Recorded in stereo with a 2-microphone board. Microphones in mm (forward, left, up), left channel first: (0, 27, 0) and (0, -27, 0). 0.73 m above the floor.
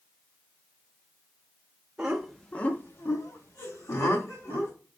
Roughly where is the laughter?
Centre.